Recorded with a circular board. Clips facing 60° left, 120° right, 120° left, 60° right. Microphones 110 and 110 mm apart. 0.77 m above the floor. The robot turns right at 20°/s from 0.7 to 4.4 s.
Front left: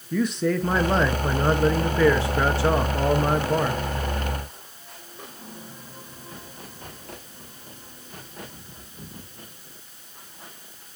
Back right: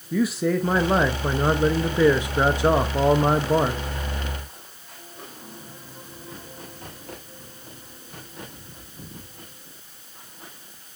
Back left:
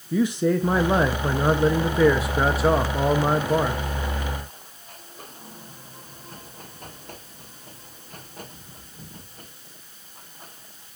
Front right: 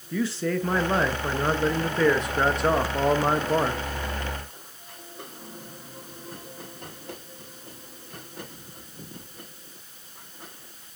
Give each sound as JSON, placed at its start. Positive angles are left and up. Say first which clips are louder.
{"t": 0.1, "sound": "a man speaking", "louder": "back right 1 dB, back left 5 dB", "azimuth_deg": 165, "distance_m": 0.5}